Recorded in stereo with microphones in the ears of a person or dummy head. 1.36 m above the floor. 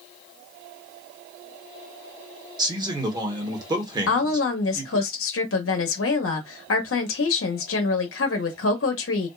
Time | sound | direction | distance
2.6 | a man speaking | 25° right (ahead or behind) | 1.0 m
4.1 | a woman speaking | 70° left (ahead or behind) | 0.8 m